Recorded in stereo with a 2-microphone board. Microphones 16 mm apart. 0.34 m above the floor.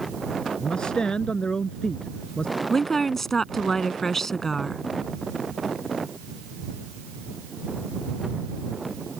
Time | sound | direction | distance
0.6 | a man speaking | 75° left (ahead or behind) | ?
2.7 | a woman speaking | 20° left (ahead or behind) | ?